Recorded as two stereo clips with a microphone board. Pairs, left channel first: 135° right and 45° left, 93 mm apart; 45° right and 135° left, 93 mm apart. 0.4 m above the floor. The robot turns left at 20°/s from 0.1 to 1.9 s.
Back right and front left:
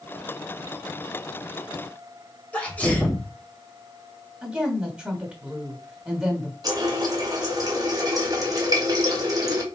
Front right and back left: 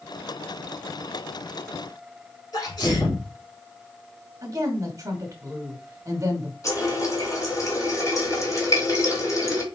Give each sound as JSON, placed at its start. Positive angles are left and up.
{"t": 2.5, "sound": "a sneeze", "azimuth_deg": -65, "distance_m": 2.0}
{"t": 4.4, "sound": "a woman speaking", "azimuth_deg": 120, "distance_m": 1.3}
{"t": 6.6, "sound": "a running tap", "azimuth_deg": 5, "distance_m": 1.9}